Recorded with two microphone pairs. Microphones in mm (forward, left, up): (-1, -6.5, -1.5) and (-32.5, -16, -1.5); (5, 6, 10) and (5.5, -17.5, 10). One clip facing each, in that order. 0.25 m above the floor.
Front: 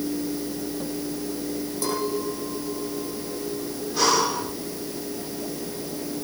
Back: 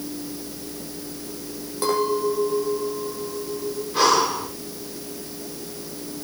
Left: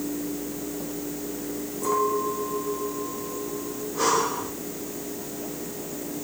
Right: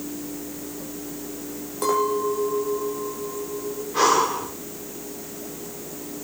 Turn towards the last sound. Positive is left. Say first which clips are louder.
# back 3 dB, right 4 dB
turn(degrees=-100)